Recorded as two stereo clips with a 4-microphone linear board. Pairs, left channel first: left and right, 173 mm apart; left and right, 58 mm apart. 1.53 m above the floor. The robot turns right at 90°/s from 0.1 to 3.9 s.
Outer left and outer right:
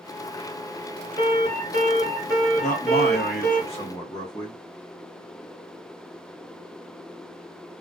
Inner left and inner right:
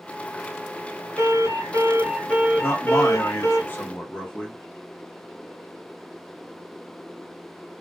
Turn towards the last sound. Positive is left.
turn(degrees=155)